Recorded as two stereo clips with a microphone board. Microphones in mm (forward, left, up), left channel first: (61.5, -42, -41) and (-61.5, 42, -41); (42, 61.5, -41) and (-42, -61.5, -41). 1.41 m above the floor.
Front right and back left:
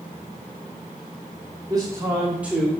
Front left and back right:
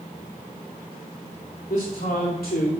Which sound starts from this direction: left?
A man speaking, at 1.7 s.